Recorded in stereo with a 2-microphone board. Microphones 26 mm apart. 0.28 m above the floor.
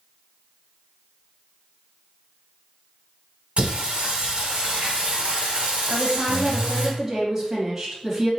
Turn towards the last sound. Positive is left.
turn(degrees=-20)  # may be behind; listen again after turning